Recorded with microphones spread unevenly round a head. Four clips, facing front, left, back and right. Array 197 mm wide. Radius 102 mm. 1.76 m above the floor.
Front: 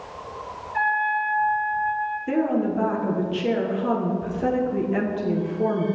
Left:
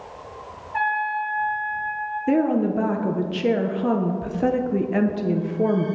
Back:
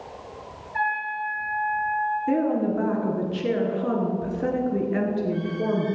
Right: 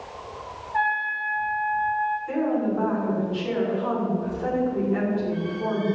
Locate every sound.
0.7 s a trumpet: 110° left, 2.5 m
2.3 s a woman speaking: 100° left, 1.1 m